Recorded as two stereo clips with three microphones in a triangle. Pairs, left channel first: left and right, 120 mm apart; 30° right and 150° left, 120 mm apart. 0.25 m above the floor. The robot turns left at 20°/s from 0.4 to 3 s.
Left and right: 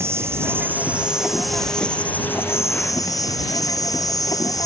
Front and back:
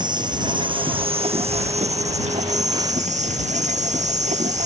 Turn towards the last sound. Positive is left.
turn(degrees=150)